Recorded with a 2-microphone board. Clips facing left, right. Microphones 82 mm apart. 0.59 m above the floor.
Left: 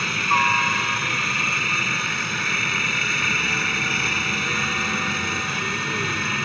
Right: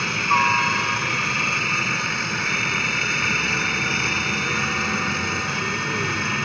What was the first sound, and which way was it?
A helicopter, 5° right (ahead or behind).